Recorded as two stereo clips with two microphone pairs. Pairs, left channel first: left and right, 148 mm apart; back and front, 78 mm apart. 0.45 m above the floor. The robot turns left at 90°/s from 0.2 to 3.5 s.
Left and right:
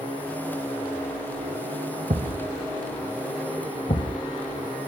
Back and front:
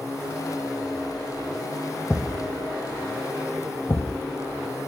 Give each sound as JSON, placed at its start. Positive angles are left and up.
{"t": 2.1, "sound": "a thud", "azimuth_deg": -95, "distance_m": 0.9}